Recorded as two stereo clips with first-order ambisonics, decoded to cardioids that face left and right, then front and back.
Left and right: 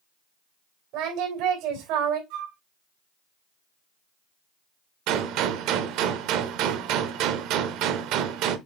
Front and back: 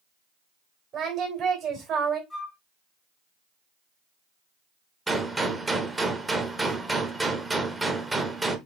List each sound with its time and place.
0.9 s singing: 115° right, 3 m
2.3 s a flute: 75° right, 2.5 m
5.1 s a gunshot: 100° right, 0.8 m